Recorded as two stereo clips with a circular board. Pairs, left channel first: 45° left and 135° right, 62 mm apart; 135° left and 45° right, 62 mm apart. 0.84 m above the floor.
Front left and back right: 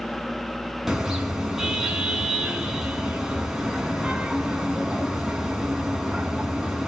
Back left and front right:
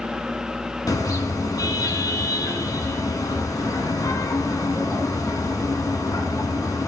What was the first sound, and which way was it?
A car horn, 140° left.